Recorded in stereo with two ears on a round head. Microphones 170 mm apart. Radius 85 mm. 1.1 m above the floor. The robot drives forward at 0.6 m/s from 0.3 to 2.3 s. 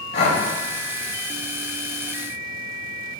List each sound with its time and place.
0.1 s breathing: 60° left (ahead or behind), 1.3 m; by 0.4 s 55° left (ahead or behind), 1.4 m